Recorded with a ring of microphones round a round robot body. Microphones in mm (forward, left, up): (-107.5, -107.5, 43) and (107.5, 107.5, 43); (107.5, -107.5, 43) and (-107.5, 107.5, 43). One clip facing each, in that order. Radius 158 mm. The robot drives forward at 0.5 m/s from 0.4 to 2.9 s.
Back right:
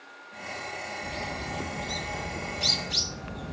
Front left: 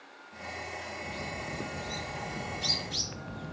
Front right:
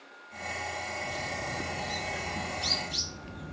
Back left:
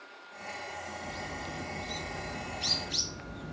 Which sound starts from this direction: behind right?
A bird, at 1.0 s.